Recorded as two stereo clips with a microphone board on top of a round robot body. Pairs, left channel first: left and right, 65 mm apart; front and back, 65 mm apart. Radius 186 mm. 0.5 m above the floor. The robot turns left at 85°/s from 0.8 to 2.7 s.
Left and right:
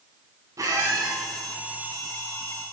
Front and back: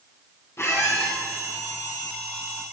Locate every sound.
0.6 s a squeak: 50° right, 1.7 m; by 1.1 s 80° right, 1.7 m